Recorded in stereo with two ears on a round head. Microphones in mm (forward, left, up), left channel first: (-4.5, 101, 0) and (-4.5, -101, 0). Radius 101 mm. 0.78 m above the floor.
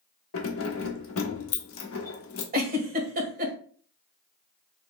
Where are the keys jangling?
60° left (ahead or behind), 1.0 m.